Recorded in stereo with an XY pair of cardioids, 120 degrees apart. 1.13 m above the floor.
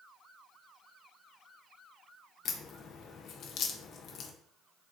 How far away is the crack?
About 0.5 m.